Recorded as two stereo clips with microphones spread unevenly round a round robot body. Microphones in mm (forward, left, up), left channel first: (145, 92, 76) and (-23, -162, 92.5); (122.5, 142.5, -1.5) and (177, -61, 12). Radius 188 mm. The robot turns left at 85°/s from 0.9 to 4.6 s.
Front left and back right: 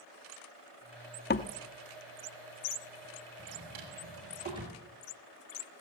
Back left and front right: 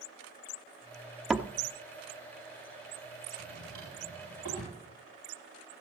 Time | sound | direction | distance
1.3 | a door slam | 15° left | 0.8 m
3.4 | a drawer | 100° right | 3 m